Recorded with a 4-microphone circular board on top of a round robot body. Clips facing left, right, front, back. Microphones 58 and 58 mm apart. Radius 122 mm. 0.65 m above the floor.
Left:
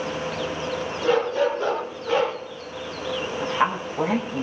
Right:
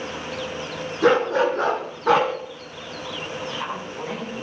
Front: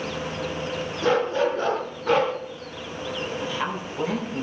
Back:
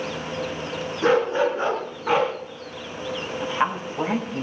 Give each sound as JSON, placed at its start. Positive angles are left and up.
{"t": 1.0, "sound": "a dog barking", "azimuth_deg": -115, "distance_m": 4.5}
{"t": 3.4, "sound": "a woman speaking", "azimuth_deg": 120, "distance_m": 5.0}